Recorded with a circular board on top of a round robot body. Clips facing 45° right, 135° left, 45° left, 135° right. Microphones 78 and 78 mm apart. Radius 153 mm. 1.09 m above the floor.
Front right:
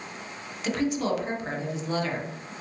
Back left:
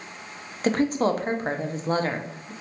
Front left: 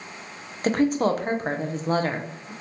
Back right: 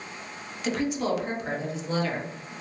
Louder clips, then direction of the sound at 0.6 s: Back left 4 dB, front left 6 dB; 90° left.